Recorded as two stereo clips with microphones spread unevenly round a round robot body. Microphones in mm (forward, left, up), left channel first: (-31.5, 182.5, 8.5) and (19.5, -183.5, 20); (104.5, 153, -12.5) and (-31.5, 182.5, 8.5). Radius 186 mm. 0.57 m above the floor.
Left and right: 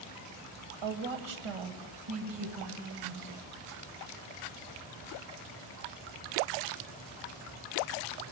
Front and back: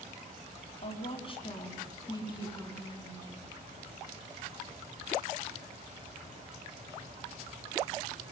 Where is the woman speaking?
70° right, 2.5 m; by 3.5 s 105° right, 4.5 m.